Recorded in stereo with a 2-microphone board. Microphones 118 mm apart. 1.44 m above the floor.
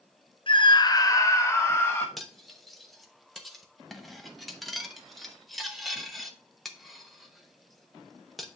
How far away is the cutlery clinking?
About 0.9 m.